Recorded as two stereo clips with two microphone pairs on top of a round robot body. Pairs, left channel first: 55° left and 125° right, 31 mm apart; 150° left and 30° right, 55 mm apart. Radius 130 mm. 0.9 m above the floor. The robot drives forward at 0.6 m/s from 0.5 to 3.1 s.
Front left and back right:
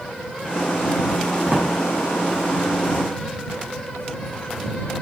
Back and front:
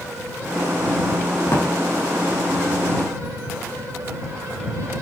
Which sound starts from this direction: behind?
A drawer, at 1.5 s.